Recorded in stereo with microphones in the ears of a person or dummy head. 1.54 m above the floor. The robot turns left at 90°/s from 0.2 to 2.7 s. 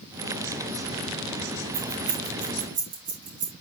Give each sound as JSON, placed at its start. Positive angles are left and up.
{"t": 1.7, "sound": "keys jangling", "side_deg": -30, "distance_m": 2.5}